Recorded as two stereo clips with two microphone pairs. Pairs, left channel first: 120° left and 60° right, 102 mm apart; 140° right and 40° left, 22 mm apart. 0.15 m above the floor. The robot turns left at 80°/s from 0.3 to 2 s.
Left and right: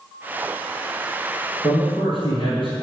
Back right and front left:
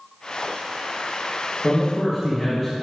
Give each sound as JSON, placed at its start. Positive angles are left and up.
{"t": 1.6, "sound": "a man speaking", "azimuth_deg": 165, "distance_m": 2.0}